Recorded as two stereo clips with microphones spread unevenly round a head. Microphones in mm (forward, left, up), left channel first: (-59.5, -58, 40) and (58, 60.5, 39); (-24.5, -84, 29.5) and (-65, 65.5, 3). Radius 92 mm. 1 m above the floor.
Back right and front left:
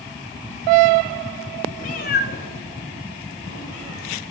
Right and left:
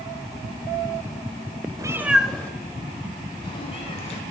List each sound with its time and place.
1.8 s a cat meowing: 175° left, 1.3 m; by 4.2 s 120° right, 3.5 m